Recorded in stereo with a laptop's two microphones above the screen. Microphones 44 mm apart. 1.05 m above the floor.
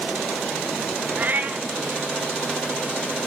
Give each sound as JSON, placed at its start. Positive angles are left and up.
{"t": 1.2, "sound": "a cat meowing", "side_deg": -40, "distance_m": 0.7}